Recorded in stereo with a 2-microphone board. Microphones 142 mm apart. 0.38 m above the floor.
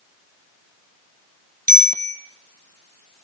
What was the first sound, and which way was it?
A bicycle bell, 80° right.